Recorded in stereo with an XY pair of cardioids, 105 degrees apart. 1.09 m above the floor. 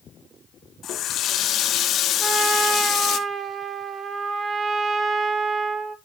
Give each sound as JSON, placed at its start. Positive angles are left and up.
{"t": 0.8, "sound": "a running tap", "azimuth_deg": 65, "distance_m": 0.9}
{"t": 2.2, "sound": "a trumpet", "azimuth_deg": -45, "distance_m": 0.9}